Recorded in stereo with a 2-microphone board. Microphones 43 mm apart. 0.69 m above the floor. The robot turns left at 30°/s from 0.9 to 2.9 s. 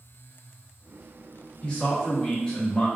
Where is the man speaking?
25° left (ahead or behind), 0.8 m; by 2.9 s 15° left (ahead or behind), 0.8 m.